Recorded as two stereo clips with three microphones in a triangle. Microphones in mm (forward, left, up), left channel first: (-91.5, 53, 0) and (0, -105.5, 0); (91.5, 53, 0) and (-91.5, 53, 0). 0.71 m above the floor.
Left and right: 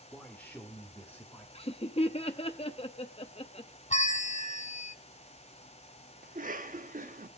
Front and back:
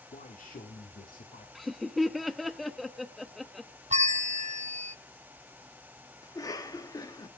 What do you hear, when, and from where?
0.1 s a man speaking: 35° left, 1.5 m; by 1.4 s 40° left, 2.5 m
1.6 s laughter: 90° left, 0.6 m
3.9 s a bell: 150° left, 1.1 m
6.2 s a cough: 65° right, 1.5 m